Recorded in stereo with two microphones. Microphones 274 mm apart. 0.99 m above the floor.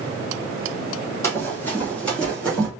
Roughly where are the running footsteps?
Centre.